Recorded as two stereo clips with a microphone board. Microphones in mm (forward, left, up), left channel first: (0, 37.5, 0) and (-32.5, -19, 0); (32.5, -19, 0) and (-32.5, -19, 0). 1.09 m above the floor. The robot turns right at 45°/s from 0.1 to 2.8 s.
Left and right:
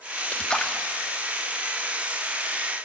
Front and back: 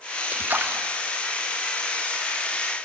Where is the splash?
120° left, 0.7 m; by 0.9 s 145° left, 0.7 m.